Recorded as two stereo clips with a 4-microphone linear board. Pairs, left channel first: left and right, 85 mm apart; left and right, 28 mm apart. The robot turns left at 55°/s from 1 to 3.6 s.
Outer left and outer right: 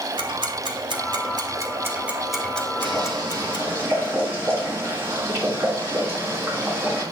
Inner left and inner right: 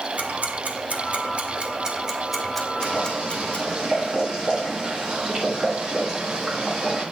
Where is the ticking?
75° right (ahead or behind), 1.5 m; by 3.8 s 65° left (ahead or behind), 1.5 m.